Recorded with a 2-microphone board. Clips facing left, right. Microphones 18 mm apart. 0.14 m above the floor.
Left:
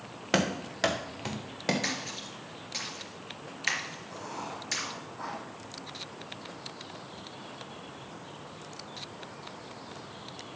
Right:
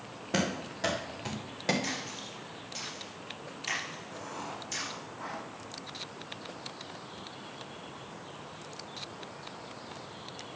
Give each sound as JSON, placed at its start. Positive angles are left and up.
{"t": 0.3, "sound": "running footsteps", "side_deg": 60, "distance_m": 2.5}
{"t": 1.8, "sound": "a splash", "side_deg": 55, "distance_m": 3.0}
{"t": 4.1, "sound": "writing", "side_deg": 45, "distance_m": 6.0}